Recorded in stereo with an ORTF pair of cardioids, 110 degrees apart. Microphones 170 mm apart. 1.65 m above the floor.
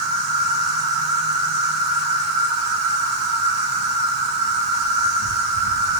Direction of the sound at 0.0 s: 70° right.